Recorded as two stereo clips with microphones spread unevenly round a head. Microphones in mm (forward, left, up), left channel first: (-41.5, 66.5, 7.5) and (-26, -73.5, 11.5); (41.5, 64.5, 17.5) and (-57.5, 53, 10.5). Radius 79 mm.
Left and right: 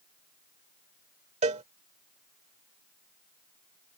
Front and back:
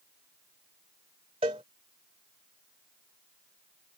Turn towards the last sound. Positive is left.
turn(degrees=-120)